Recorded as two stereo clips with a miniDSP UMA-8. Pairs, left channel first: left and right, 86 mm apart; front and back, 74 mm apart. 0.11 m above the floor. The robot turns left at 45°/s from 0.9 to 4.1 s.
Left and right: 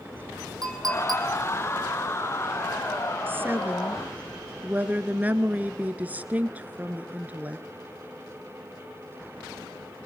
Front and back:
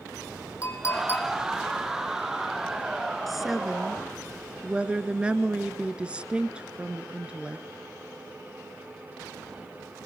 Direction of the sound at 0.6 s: 50° right.